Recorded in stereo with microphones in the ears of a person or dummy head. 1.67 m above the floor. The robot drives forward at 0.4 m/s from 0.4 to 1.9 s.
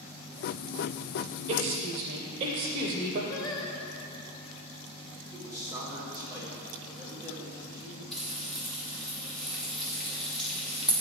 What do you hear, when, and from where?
1.5 s a woman speaking: 40° right (ahead or behind), 0.7 m; by 3.2 s 45° right (ahead or behind), 0.6 m
3.3 s singing: 25° left (ahead or behind), 0.9 m
5.3 s a man speaking: 15° right (ahead or behind), 2 m
8.1 s frying: 5° left (ahead or behind), 1.0 m